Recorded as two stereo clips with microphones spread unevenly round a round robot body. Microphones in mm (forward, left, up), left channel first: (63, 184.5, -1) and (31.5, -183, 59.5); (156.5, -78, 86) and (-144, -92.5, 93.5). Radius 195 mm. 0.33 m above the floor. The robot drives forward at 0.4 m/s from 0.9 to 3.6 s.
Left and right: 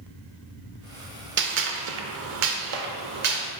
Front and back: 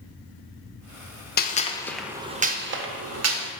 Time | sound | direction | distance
1.4 | a gunshot | 35° right | 0.6 m